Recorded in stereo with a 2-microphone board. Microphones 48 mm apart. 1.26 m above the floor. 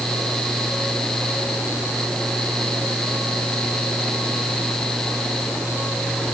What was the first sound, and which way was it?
Only background noise.